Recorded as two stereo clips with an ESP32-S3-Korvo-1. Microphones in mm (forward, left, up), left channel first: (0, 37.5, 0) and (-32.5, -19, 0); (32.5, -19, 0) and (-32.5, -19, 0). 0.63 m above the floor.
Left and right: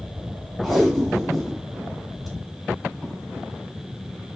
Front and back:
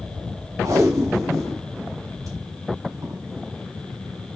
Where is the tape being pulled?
145° left, 2.5 m.